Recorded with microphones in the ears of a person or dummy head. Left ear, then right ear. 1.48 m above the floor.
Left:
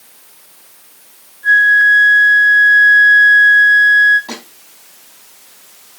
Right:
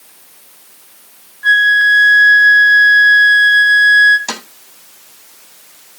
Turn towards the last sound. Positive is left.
turn(degrees=-80)